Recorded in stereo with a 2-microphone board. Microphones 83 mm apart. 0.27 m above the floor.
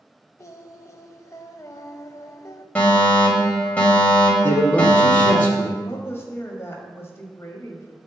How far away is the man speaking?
About 2 m.